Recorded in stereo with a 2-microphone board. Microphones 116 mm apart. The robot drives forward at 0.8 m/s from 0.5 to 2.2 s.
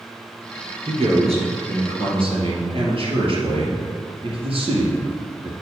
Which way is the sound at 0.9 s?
55° right (ahead or behind).